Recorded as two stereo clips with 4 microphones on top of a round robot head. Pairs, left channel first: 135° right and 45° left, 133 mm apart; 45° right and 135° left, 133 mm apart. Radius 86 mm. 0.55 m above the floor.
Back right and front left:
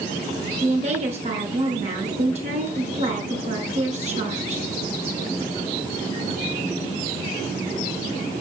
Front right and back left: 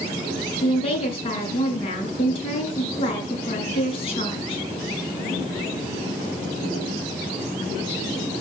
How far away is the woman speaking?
About 7 m.